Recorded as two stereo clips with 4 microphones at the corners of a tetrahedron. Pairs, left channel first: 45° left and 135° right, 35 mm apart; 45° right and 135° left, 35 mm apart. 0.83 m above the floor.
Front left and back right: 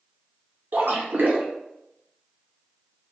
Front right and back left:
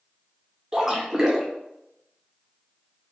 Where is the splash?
150° right, 0.6 m.